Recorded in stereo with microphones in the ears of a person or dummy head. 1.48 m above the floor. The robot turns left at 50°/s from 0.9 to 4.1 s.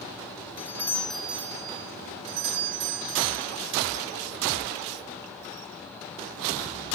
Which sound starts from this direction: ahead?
A doorbell, at 0.6 s.